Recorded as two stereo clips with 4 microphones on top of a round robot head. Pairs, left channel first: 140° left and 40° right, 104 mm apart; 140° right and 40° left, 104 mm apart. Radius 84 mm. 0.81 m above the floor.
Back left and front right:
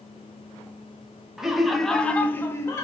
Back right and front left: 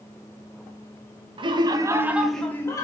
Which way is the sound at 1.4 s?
45° left.